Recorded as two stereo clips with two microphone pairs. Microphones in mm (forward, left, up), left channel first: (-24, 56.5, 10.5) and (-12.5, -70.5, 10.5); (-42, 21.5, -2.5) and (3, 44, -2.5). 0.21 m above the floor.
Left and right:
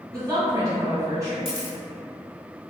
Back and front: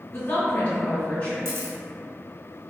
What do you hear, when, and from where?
0.1 s a woman speaking: 135° right, 1.7 m; by 1.4 s 115° right, 1.3 m
1.4 s a camera shutter: 55° left, 1.0 m